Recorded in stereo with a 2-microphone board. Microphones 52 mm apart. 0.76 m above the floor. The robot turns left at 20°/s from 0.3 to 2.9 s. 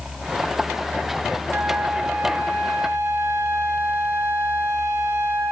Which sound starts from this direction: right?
A flute, at 1.5 s.